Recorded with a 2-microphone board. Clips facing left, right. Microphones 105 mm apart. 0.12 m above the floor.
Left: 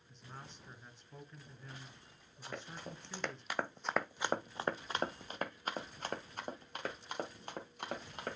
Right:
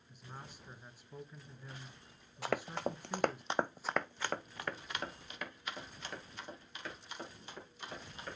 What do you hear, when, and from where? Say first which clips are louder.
0.1 s a man speaking: right 1 dB; 10° right (ahead or behind), 1.2 m
2.4 s running footsteps: right 10 dB; 80° right, 0.8 m; by 8.4 s 55° left (ahead or behind), 3 m